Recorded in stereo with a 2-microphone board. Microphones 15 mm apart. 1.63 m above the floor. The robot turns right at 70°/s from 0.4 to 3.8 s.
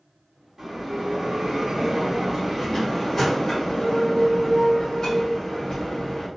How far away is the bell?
About 1.8 m.